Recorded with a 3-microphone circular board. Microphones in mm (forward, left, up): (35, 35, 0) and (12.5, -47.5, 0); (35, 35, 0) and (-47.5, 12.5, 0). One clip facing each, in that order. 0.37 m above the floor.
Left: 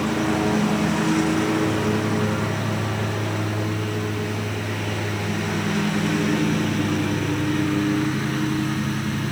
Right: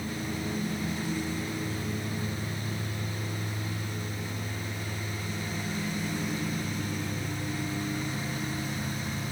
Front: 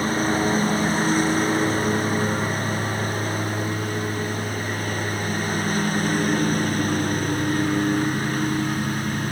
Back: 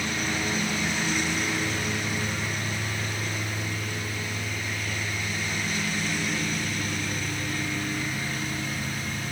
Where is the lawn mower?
65° left; by 9.3 s 55° left.